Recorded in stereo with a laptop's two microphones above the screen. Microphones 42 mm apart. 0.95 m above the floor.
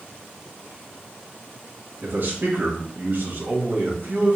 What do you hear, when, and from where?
2.0 s a man speaking: 50° right (ahead or behind), 1.4 m